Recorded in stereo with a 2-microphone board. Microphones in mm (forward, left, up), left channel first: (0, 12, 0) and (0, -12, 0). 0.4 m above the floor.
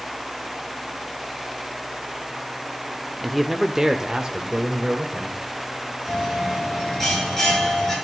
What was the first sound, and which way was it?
A man speaking, 5° left (ahead or behind).